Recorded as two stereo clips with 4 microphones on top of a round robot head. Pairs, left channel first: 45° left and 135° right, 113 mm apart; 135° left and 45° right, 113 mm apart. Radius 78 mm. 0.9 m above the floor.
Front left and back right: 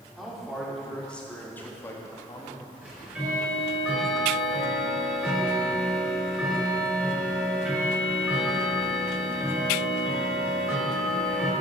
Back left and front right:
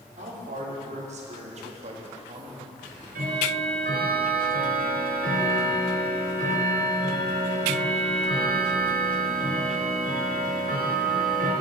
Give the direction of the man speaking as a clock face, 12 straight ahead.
2 o'clock.